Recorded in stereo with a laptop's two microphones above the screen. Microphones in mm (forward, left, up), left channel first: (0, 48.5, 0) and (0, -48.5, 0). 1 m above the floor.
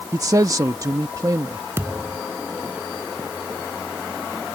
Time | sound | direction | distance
0.1 | a man speaking | 35° right (ahead or behind) | ?
1.8 | a thud | 25° right (ahead or behind) | ?